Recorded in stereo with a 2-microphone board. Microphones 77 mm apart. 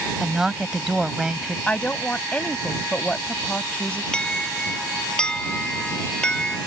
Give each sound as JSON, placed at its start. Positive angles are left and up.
{"t": 0.2, "sound": "a woman speaking", "side_deg": -5}
{"t": 1.7, "sound": "a woman speaking", "side_deg": 15}
{"t": 4.1, "sound": "an alarm", "side_deg": 10}